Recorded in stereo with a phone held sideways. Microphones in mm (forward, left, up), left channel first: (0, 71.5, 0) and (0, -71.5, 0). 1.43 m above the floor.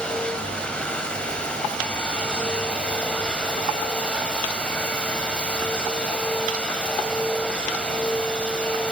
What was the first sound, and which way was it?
A machine running, 5° left (ahead or behind).